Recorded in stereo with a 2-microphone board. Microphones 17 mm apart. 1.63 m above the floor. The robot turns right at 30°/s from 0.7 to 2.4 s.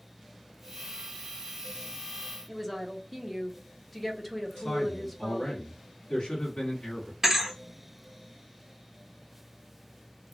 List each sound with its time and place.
2.5 s a woman speaking: 5° left (ahead or behind), 0.8 m
4.6 s a man speaking: 70° left (ahead or behind), 1.2 m
7.2 s a thud: 20° right (ahead or behind), 1.1 m